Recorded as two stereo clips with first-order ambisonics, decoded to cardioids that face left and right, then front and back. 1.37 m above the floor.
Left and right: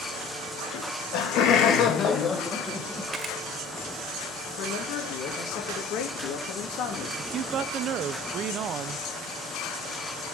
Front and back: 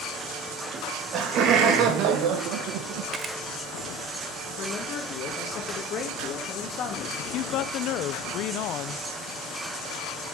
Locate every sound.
0.7 s laughter: 125° left, 3 m; by 3.0 s 175° right, 1.7 m
3.1 s a camera shutter: 135° right, 1.2 m
4.6 s a man speaking: 50° left, 2 m
7.2 s a woman speaking: 40° right, 0.6 m